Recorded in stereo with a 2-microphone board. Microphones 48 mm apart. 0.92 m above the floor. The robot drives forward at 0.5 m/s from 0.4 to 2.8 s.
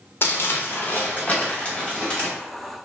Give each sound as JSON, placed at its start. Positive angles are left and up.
{"t": 0.2, "sound": "crumpling", "side_deg": 50, "distance_m": 0.5}